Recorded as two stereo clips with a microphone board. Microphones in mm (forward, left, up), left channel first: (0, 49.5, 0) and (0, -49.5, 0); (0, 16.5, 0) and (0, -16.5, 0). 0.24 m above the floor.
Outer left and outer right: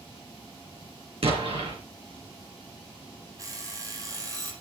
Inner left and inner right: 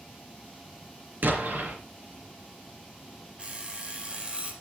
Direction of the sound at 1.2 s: 75° right (ahead or behind).